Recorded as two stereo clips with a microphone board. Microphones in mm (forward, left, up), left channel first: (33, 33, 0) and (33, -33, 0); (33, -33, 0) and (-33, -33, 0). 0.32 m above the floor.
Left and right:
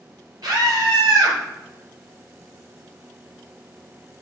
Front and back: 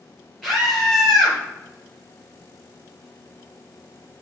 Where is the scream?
90° right, 4.5 m.